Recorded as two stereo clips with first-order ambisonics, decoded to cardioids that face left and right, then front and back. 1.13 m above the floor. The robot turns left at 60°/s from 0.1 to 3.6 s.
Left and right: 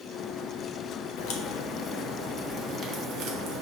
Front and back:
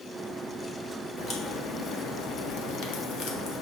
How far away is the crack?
About 1.2 m.